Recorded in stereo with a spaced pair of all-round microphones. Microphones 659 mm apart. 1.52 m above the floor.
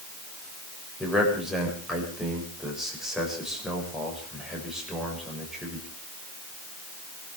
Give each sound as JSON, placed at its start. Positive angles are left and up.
{"t": 1.0, "sound": "a man speaking", "side_deg": 0, "distance_m": 6.5}